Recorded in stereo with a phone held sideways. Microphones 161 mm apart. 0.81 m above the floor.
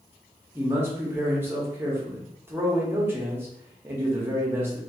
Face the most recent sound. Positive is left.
turn(degrees=-15)  # may be behind; listen again after turning